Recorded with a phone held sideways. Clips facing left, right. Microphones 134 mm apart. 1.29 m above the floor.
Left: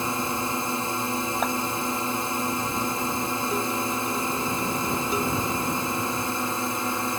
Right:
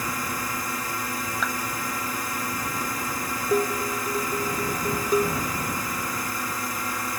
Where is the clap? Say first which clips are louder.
Left 4 dB; 50° left (ahead or behind).